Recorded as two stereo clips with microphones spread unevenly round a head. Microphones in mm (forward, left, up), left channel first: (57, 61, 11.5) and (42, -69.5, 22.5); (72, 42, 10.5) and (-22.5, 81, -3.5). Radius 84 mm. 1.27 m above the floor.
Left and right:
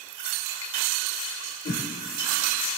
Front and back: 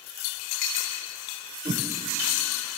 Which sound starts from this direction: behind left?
A whoosh, at 1.6 s.